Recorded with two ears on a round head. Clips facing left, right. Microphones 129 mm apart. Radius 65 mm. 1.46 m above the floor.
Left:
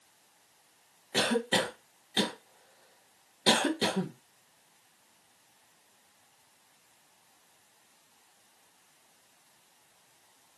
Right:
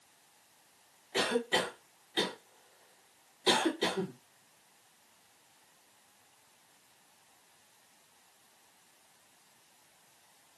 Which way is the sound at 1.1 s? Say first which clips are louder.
Left 2 dB; 60° left (ahead or behind).